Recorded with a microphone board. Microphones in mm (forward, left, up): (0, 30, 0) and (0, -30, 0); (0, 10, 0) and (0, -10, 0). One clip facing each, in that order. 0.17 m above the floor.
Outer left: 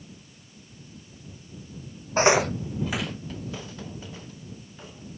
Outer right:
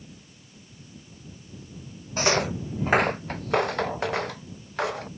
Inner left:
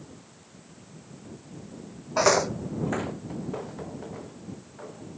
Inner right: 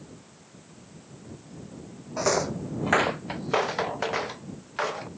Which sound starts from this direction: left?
Footsteps, at 2.2 s.